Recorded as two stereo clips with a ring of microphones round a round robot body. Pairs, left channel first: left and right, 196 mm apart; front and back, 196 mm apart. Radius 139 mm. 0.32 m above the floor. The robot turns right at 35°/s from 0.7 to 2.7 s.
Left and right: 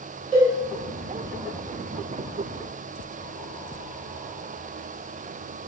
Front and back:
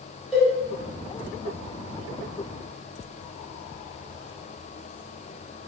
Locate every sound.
0.3 s a cowbell: 95° right, 0.9 m